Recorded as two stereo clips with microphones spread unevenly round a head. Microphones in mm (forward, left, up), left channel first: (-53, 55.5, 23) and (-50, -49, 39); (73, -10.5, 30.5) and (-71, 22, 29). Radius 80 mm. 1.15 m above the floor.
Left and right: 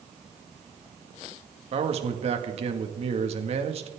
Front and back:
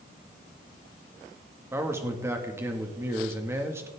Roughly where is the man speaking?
Behind right.